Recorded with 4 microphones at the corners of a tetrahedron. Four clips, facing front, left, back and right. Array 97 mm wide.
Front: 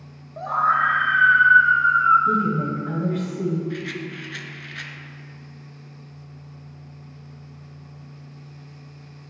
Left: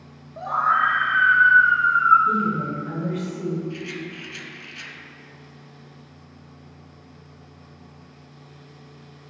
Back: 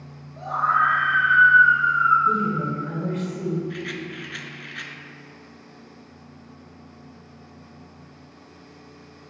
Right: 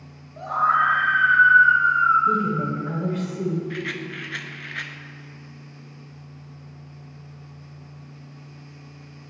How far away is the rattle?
About 0.7 m.